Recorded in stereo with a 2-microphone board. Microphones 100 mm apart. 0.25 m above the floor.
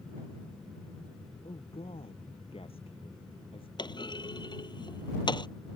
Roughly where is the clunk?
Left.